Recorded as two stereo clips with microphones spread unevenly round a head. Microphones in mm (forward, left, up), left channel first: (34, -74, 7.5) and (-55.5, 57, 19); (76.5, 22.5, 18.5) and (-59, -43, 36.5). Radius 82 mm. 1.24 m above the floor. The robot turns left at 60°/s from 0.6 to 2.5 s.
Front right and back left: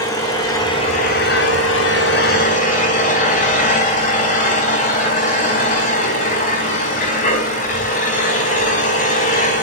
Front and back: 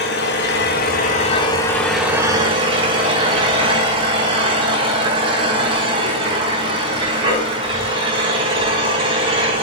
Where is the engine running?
15° left, 4.5 m; by 9.6 s 100° right, 4.5 m.